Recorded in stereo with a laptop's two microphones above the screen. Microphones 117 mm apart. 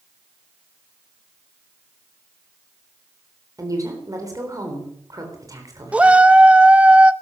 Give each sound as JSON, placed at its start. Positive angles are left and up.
{"t": 3.6, "sound": "a woman speaking", "side_deg": -30, "distance_m": 3.5}
{"t": 5.9, "sound": "a shout", "side_deg": -10, "distance_m": 1.2}